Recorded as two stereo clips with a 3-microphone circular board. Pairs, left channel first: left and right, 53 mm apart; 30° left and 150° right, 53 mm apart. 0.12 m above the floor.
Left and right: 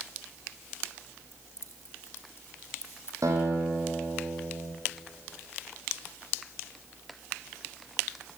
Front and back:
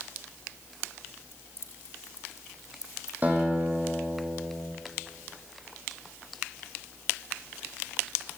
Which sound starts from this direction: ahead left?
Keys jangling, at 1.3 s.